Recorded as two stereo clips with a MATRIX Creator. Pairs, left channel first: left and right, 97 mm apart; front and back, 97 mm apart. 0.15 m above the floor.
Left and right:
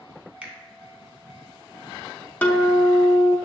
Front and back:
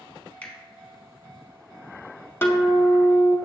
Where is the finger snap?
35° right, 0.9 m.